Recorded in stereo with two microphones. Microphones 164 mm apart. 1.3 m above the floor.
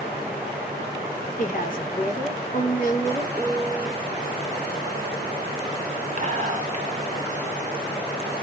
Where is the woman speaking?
50° left (ahead or behind), 2 m.